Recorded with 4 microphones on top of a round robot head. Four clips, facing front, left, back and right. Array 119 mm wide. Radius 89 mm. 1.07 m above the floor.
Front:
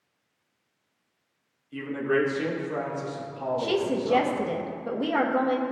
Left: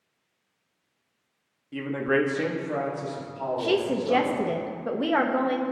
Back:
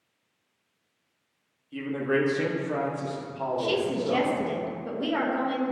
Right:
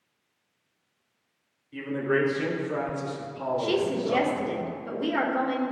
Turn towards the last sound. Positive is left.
turn(degrees=75)